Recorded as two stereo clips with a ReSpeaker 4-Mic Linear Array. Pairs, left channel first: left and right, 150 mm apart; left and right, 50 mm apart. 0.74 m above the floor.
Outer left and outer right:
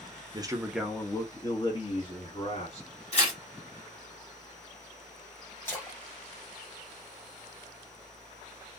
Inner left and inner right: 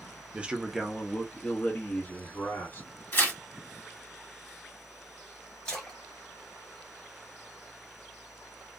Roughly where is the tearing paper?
Left.